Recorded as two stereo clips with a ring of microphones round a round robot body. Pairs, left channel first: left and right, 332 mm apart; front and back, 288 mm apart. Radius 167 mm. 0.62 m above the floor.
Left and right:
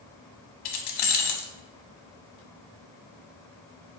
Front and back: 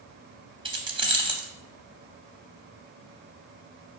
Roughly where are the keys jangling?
Left.